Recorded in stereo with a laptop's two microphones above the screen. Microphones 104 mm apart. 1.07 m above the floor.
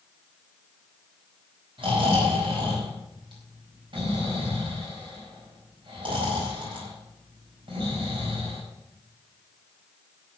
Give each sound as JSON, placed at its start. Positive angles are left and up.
{"t": 1.8, "sound": "snoring", "side_deg": -55, "distance_m": 4.5}